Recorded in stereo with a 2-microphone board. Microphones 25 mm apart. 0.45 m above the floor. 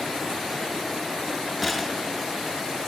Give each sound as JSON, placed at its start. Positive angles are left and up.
{"t": 1.6, "sound": "a gunshot", "side_deg": -5, "distance_m": 1.5}